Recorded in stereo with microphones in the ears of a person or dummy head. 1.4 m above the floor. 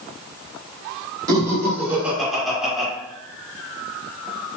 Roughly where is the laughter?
Right.